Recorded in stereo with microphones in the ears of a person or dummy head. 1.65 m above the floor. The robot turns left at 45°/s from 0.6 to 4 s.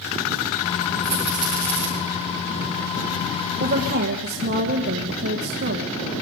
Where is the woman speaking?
40° right (ahead or behind), 1.2 m; by 6.0 s 55° right (ahead or behind), 1.2 m.